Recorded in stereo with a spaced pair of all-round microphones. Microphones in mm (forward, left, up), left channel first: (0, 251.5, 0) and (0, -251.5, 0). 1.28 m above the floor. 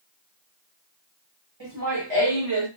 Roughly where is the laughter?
Right.